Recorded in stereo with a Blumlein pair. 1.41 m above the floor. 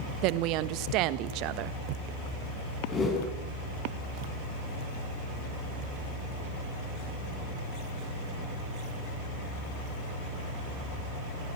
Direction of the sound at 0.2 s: 40° right.